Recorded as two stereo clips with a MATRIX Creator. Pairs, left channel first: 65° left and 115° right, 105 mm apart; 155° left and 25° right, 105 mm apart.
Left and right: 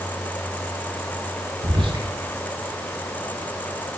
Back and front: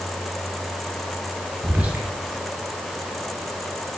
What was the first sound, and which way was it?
Whispering, 95° right.